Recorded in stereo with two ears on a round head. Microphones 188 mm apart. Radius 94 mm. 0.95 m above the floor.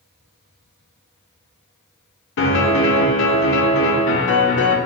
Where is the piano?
60° left (ahead or behind), 0.6 m.